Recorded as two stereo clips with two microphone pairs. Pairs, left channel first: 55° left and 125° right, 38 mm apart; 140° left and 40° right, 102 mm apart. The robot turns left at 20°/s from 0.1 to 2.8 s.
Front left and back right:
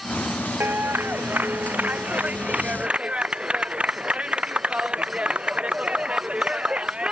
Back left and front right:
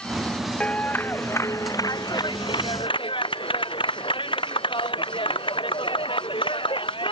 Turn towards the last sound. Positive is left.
turn(degrees=175)